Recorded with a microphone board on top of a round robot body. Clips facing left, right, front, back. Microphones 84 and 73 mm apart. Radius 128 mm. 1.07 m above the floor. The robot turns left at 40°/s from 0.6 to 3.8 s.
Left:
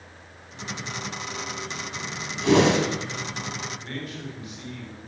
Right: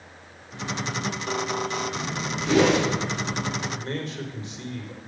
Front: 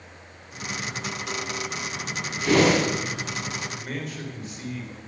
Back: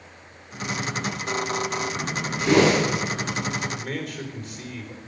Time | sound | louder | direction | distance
2.4 | a whoosh | left 1 dB, back 1 dB | 115° left | 4.5 m
3.7 | a man speaking | right 4 dB, back 2 dB | 145° right | 4.5 m